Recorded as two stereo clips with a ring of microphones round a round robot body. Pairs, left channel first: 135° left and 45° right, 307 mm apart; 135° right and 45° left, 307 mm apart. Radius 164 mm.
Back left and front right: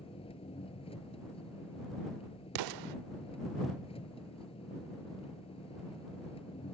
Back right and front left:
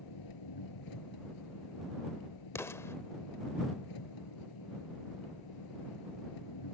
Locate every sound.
0.0 s an engine running: 150° right
2.5 s an explosion: 55° right